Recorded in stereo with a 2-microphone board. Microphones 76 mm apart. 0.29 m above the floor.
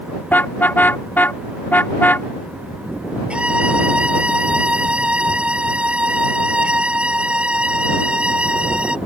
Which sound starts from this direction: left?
A car horn, at 0.3 s.